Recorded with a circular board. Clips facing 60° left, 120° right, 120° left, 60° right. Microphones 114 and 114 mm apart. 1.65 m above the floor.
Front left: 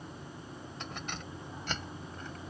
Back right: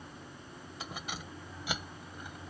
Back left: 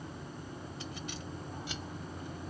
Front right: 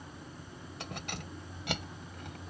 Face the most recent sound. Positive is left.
turn(degrees=-40)